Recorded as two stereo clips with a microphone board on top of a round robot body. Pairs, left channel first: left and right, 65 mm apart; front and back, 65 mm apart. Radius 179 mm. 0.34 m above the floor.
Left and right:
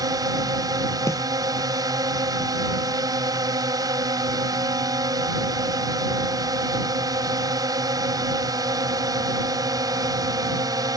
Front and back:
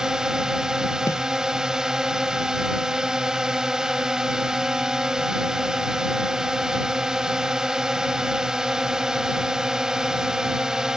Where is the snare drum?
50° left.